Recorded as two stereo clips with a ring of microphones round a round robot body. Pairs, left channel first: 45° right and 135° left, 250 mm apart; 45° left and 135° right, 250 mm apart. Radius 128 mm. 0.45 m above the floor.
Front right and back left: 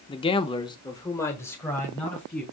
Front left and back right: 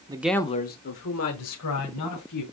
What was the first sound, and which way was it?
A man speaking, 90° right.